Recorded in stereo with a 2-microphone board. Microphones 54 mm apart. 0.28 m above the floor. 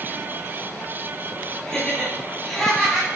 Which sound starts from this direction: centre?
Laughter, at 1.6 s.